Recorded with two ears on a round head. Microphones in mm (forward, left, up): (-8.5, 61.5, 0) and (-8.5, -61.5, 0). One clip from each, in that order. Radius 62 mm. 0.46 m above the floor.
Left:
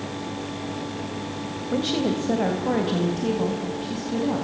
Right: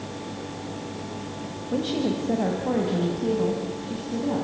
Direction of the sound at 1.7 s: 25° left (ahead or behind).